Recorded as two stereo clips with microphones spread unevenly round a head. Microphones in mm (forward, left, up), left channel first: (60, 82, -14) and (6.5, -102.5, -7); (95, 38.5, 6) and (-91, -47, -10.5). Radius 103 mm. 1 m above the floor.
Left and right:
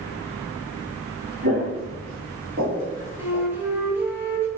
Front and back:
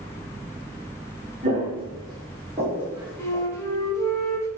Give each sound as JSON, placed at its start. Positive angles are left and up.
{"t": 1.4, "sound": "footsteps", "azimuth_deg": -100, "distance_m": 1.5}
{"t": 3.2, "sound": "a flute", "azimuth_deg": -35, "distance_m": 0.8}